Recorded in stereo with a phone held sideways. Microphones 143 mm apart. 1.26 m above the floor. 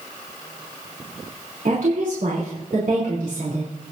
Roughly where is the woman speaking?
Right.